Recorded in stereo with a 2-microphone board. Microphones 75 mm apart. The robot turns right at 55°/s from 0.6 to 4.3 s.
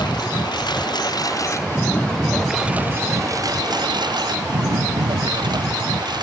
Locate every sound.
0.0 s a lawn mower: 85° left; by 6.2 s 85° right